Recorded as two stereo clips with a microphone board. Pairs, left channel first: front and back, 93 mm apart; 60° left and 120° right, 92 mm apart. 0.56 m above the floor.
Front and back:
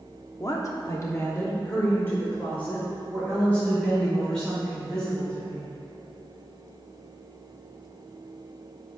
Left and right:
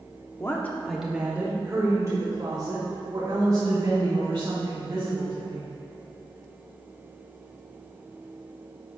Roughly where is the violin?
No violin in this recording.